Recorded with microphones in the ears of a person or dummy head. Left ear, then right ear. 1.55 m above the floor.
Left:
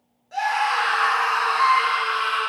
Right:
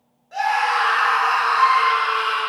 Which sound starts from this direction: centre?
A scream, at 0.3 s.